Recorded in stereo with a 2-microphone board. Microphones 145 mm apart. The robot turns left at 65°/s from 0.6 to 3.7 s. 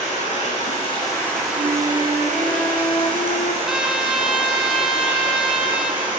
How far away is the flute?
About 0.5 m.